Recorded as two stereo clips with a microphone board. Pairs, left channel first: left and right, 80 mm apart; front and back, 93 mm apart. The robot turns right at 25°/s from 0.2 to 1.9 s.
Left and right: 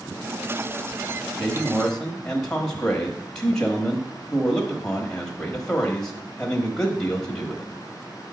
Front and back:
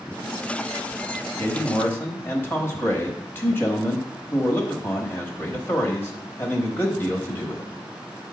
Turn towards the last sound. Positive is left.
turn(degrees=20)